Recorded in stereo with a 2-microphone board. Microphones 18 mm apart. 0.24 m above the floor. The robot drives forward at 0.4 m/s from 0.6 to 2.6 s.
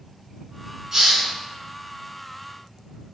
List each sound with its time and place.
0.9 s a hiss: 25° right (ahead or behind), 1.7 m